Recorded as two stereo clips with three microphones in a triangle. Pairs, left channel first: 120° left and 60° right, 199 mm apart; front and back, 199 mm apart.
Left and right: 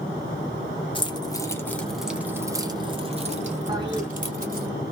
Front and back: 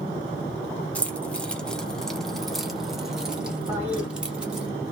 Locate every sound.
0.9 s keys jangling: 80° left, 1.0 m; by 4.7 s 95° right, 1.7 m
3.7 s a toilet flushing: 110° right, 1.7 m